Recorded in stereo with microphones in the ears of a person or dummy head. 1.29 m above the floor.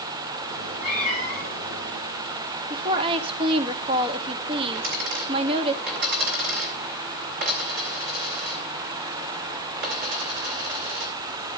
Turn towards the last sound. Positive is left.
turn(degrees=-50)  # may be behind; listen again after turning